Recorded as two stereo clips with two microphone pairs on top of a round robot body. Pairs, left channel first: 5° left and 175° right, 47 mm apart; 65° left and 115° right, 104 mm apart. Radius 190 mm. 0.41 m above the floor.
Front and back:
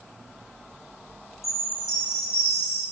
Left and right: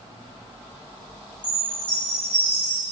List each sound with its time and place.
1.4 s a chime: 15° right, 7.5 m